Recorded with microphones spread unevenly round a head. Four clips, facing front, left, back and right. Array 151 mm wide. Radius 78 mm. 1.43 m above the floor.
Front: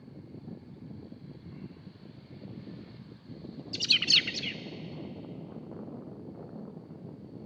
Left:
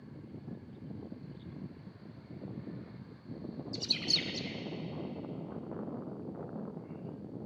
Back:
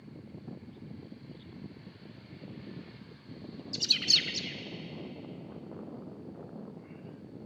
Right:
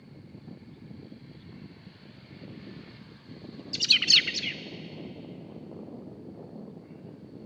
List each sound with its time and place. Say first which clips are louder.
3.7 s a bird: right 10 dB, front 4 dB; 90° right, 0.6 m